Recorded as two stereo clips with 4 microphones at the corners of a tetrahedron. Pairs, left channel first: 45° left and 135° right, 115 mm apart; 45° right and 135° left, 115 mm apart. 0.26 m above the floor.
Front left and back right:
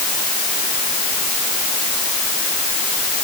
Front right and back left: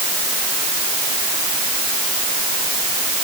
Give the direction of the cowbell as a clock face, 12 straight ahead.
No cowbell in this recording.